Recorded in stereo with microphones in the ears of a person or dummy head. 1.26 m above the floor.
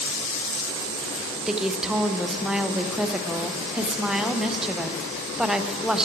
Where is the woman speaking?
Centre (ahead or behind), 0.6 m.